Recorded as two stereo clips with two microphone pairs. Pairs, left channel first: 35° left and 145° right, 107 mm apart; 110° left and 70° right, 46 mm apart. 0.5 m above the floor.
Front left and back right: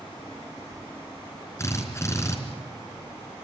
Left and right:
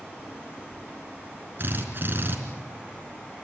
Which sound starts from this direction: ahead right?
A drill, at 1.6 s.